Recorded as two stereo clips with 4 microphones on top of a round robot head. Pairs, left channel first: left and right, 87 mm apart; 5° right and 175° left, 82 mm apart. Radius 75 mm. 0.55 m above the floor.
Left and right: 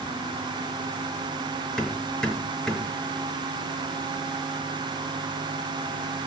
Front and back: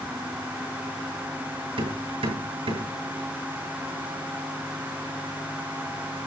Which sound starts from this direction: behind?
Hammering, at 1.8 s.